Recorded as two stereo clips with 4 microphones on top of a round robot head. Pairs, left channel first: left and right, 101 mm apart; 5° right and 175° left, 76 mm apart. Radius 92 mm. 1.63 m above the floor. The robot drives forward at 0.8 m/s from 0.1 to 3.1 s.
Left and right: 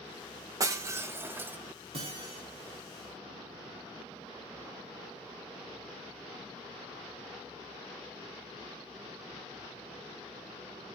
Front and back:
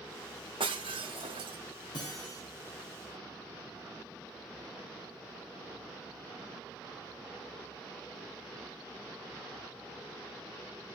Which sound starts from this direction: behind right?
Breaking glass, at 0.6 s.